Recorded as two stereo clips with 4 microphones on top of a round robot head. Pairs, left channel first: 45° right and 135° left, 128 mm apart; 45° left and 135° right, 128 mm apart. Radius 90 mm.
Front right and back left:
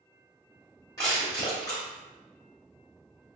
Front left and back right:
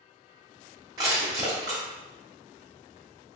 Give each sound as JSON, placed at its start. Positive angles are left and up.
{"t": 1.0, "sound": "crushing", "azimuth_deg": -90, "distance_m": 0.9}